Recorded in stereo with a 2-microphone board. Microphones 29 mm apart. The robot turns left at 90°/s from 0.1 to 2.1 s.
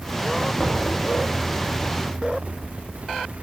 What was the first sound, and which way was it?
Knocking, 165° left.